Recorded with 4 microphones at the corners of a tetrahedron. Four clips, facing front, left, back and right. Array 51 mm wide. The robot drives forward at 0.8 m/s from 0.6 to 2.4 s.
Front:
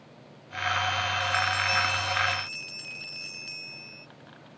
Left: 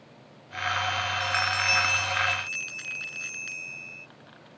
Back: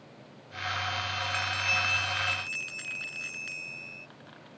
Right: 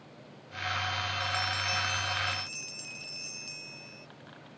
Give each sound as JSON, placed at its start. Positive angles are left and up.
{"t": 1.2, "sound": "a bell", "azimuth_deg": 115}